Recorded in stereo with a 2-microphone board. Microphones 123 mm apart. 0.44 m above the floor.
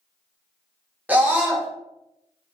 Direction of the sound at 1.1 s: 15° right (ahead or behind).